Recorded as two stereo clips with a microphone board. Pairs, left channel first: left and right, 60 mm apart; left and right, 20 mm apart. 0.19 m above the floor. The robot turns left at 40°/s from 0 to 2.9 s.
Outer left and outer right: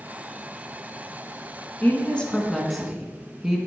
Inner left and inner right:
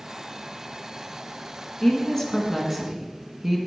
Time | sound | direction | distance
1.8 | a woman speaking | 40° left | 1.5 m